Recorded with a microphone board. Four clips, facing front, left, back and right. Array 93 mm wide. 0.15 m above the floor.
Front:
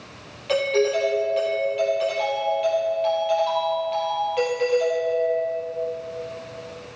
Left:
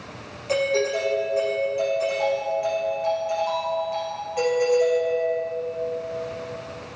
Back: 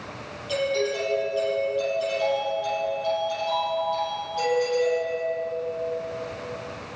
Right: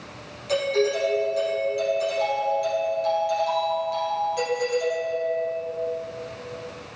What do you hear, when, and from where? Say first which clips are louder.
0.5 s a doorbell: even, front 5 dB; 30° left, 4 m